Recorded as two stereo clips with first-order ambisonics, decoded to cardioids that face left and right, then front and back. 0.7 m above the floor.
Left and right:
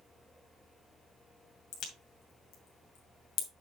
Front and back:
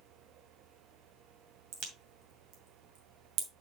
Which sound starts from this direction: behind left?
A crack, at 1.7 s.